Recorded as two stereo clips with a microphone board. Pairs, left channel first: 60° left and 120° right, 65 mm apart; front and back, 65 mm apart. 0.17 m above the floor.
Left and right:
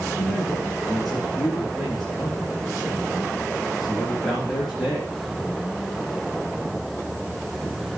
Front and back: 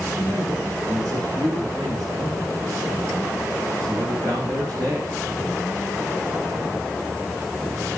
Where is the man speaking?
145° left, 8.5 m.